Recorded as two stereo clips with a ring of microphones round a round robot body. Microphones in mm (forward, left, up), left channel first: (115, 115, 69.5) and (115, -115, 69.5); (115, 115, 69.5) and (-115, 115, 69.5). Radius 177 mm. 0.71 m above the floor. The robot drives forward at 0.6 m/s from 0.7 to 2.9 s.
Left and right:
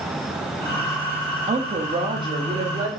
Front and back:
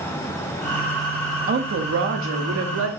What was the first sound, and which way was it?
A woman speaking, 145° right.